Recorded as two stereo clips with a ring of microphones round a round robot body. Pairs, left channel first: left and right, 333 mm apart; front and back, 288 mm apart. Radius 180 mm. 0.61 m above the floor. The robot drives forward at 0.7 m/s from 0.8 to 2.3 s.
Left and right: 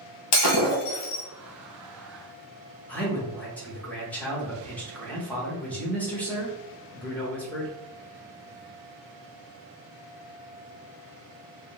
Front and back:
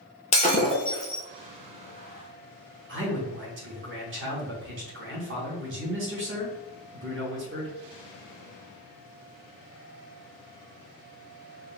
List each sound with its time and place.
0.3 s breaking glass: 65° left, 0.9 m; by 1.2 s 90° left, 0.8 m
2.9 s a man speaking: 175° left, 1.1 m